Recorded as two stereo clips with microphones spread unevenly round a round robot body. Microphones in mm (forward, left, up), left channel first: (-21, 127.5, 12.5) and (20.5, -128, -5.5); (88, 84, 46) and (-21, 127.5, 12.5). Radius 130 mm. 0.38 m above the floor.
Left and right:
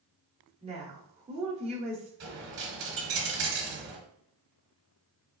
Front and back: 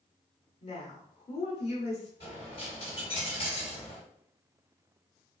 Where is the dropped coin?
125° right, 1.3 m.